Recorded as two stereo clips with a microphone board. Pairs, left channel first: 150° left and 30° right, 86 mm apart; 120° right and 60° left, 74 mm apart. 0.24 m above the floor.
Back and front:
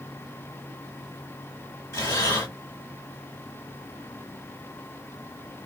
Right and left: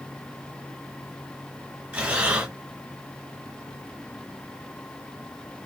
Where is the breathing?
125° left, 1.6 m.